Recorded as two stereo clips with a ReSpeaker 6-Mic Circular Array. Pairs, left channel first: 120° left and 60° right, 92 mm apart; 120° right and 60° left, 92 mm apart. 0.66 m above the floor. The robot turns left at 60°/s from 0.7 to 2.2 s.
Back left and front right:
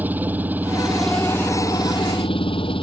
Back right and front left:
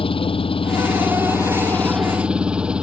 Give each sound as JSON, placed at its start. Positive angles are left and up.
{"t": 0.0, "sound": "an engine running", "azimuth_deg": -130}